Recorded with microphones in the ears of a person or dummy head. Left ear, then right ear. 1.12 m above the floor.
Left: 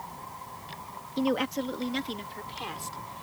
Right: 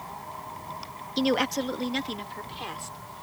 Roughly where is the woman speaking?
Right.